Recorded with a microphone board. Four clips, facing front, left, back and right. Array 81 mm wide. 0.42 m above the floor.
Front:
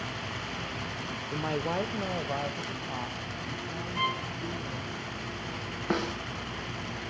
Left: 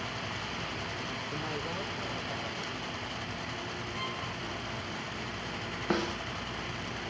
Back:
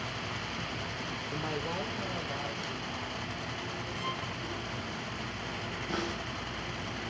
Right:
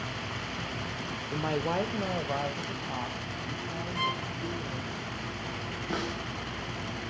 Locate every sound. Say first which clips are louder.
1.3 s a woman speaking: right 10 dB, front 6 dB; 55° right, 0.8 m; by 5.0 s 50° right, 4.5 m
4.0 s a violin: right 8 dB, front 8 dB; 15° right, 1.4 m
5.9 s a snare drum: left 3 dB, front 5 dB; 35° left, 9.5 m